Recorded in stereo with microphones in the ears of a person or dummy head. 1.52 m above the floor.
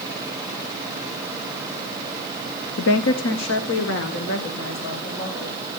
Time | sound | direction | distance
2.8 | a woman speaking | 65° left (ahead or behind) | 0.7 m